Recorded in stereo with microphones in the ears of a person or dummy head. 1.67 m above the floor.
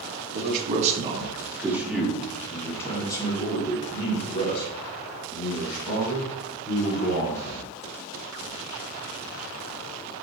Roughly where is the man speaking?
Right.